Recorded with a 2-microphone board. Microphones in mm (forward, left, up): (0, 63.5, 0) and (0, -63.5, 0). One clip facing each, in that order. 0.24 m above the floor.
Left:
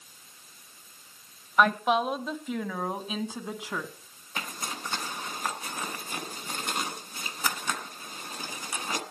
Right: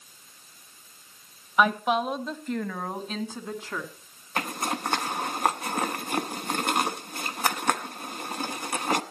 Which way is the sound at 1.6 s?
5° right (ahead or behind).